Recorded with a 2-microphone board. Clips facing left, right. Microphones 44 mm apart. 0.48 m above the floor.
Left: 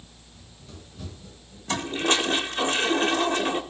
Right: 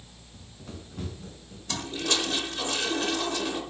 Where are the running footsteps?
80° right, 3.5 m; by 1.6 s 85° right, 4.5 m.